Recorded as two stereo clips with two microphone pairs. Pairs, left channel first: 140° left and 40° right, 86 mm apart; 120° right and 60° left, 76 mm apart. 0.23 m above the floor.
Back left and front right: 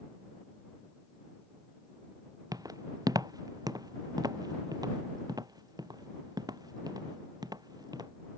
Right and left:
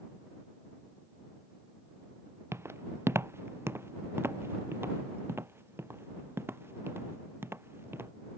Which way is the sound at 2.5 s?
5° left.